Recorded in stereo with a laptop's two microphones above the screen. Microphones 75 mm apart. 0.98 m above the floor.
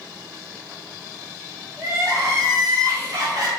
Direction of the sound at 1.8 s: 50° right (ahead or behind).